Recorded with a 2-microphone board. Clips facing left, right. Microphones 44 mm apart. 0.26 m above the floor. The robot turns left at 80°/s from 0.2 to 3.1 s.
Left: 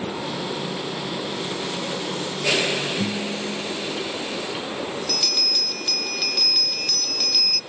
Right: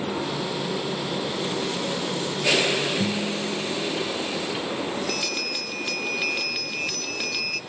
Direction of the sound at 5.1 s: 20° right (ahead or behind).